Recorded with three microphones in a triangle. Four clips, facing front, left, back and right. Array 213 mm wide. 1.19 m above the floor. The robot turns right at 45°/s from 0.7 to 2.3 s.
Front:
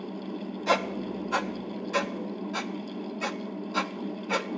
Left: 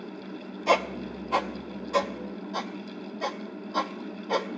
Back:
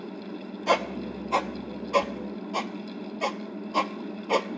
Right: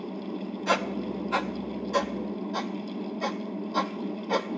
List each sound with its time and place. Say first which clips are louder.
0.7 s a squeak: left 3 dB, back 2 dB; 110° left, 0.6 m; by 4.5 s straight behind, 0.6 m